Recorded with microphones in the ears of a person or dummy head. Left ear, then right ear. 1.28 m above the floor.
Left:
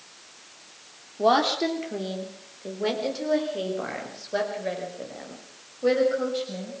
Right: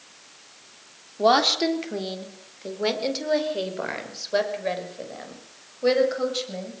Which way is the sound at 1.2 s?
25° right (ahead or behind).